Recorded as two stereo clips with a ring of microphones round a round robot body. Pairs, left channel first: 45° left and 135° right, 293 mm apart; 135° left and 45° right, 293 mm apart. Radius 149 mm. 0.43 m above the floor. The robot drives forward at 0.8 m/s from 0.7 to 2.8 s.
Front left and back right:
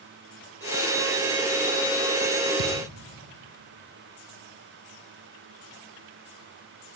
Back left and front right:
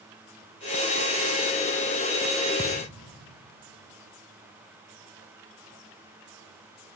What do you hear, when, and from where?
2.6 s a thud: 125° right, 3.5 m